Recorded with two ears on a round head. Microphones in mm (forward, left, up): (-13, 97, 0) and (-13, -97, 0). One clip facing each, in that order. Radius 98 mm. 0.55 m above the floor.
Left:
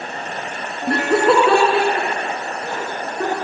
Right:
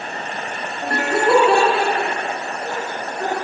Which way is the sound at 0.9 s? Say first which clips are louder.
Left 2 dB; 60° left (ahead or behind).